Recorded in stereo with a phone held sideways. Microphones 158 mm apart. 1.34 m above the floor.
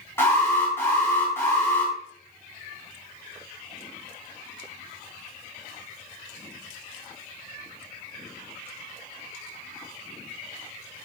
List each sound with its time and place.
0.2 s an alarm: 15° left (ahead or behind), 5 m